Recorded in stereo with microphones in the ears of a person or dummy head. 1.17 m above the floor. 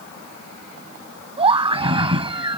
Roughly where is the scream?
Right.